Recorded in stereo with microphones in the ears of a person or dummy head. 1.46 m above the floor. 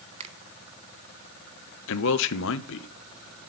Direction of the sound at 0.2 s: 25° right (ahead or behind).